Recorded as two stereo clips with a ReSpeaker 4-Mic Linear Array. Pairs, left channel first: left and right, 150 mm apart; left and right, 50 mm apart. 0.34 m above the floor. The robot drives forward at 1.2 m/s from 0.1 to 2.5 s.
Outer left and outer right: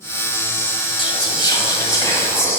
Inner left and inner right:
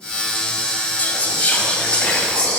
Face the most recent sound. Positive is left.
turn(degrees=20)  # may be behind; listen again after turning